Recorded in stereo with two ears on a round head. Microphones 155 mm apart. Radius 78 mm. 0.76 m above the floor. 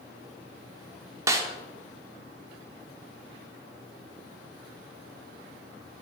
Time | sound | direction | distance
1.3 | a snare drum | 20° right (ahead or behind) | 0.5 m